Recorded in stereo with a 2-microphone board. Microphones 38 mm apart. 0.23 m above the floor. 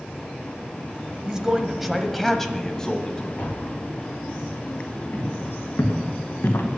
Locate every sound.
1.3 s a man speaking: 20° right (ahead or behind), 1.0 m; by 3.3 s 20° left (ahead or behind), 1.3 m
3.4 s tapping: 45° left (ahead or behind), 4 m
5.1 s footsteps: 70° left (ahead or behind), 2.5 m; by 6.7 s 80° left, 2.5 m